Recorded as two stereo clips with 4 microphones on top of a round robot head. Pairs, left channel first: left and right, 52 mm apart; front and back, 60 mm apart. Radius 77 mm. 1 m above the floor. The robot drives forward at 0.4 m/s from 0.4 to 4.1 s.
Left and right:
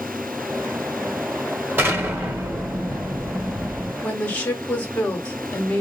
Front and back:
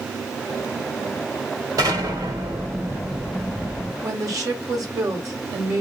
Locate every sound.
1.8 s an explosion: 140° right, 2 m; by 3.9 s 150° right, 2.5 m
4.0 s a woman speaking: 150° left, 1.8 m